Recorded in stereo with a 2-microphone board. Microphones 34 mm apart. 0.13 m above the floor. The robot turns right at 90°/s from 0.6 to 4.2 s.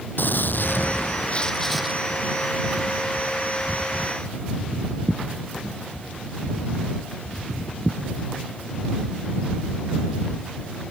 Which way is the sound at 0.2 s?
80° left.